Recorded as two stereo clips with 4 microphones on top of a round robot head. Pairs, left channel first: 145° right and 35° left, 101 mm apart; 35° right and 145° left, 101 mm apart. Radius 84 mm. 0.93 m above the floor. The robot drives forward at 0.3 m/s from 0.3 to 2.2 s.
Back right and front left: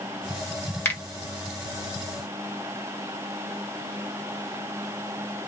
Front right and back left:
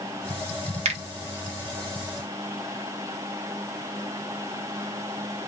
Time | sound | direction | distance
0.8 | a finger snap | 145° left | 1.3 m